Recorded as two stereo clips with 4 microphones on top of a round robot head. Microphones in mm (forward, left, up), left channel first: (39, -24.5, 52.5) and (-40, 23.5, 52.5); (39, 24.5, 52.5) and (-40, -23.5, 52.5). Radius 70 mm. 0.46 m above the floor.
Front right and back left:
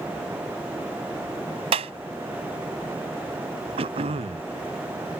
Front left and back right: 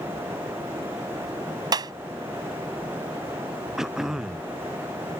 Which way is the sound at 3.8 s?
125° left.